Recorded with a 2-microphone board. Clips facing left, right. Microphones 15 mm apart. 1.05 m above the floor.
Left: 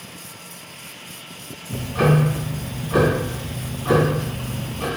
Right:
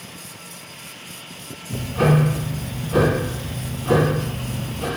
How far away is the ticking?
About 1.2 m.